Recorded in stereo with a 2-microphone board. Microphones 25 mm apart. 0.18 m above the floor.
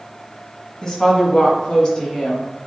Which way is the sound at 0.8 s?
25° left (ahead or behind).